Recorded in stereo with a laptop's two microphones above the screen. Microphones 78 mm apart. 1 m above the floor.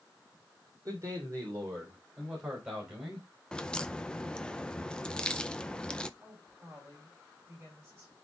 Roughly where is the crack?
Centre.